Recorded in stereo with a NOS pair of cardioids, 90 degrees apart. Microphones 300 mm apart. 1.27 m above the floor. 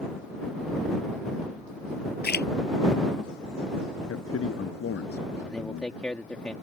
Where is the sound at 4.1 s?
50° left.